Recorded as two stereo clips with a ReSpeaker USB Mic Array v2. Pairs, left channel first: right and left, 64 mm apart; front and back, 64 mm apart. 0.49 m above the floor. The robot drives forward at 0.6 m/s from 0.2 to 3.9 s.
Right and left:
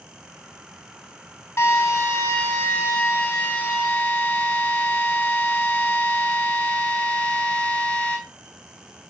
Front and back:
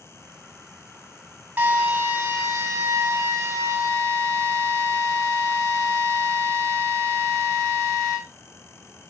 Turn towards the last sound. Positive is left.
turn(degrees=-150)